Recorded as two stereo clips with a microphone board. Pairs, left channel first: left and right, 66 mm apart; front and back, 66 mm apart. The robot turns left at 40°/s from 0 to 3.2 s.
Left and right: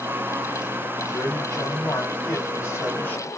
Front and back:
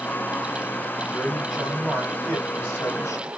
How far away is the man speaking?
About 2.5 m.